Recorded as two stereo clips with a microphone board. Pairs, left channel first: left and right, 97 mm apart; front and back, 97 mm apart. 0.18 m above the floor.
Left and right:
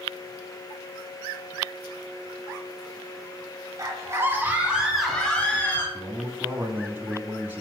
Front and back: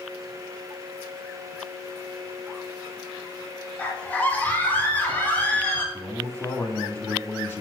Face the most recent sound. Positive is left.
turn(degrees=-45)